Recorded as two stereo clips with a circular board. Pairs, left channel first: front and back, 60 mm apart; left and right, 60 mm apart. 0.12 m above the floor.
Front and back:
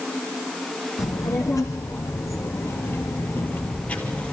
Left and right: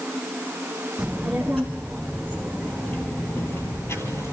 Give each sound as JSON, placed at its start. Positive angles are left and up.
{"t": 1.0, "sound": "a child speaking", "azimuth_deg": 0, "distance_m": 3.0}